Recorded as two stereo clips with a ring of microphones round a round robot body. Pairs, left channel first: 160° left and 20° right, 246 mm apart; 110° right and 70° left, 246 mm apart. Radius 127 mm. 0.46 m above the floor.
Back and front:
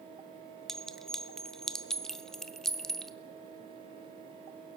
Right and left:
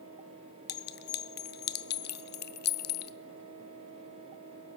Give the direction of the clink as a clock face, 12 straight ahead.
4 o'clock.